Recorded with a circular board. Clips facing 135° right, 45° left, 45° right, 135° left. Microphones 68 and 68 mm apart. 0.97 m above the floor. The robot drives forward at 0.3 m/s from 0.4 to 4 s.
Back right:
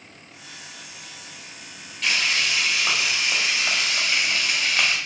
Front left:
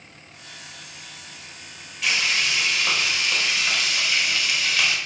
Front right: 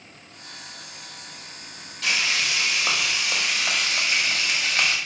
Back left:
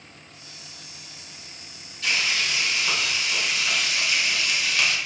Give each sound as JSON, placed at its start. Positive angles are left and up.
{"t": 2.0, "sound": "frying", "azimuth_deg": -40, "distance_m": 0.8}